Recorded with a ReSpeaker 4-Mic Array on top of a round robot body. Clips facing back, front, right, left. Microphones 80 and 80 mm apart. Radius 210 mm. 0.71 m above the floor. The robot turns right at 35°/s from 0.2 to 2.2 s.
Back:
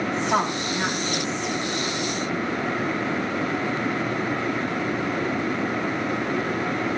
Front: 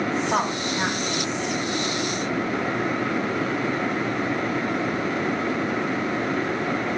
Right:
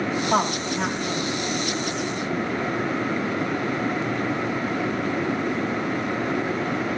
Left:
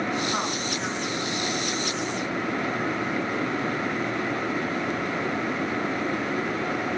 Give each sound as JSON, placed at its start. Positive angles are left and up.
{"t": 0.2, "sound": "a woman speaking", "azimuth_deg": -90, "distance_m": 5.0}